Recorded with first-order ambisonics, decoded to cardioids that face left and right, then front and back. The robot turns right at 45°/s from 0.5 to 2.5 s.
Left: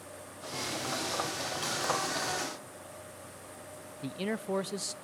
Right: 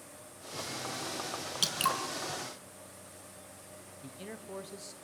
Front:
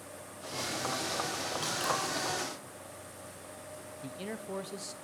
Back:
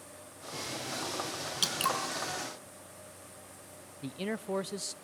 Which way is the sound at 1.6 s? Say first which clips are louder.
Right 3 dB, back 3 dB; 135° right.